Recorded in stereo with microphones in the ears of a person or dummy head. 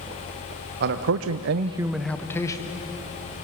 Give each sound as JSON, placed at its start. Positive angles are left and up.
{"t": 0.8, "sound": "a man speaking", "side_deg": -60, "distance_m": 1.2}